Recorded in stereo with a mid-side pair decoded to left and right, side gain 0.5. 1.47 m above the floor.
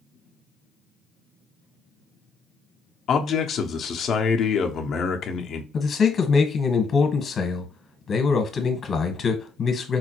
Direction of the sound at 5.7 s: 45° left.